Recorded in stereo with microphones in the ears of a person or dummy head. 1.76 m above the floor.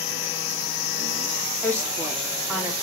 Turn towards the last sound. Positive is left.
turn(degrees=-15)  # may be behind; listen again after turning